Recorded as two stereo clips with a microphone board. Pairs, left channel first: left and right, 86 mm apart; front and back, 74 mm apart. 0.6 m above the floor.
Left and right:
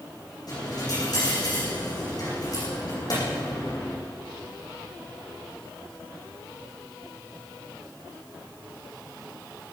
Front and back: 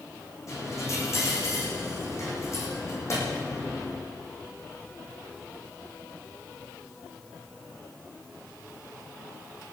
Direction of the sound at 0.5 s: 50° left.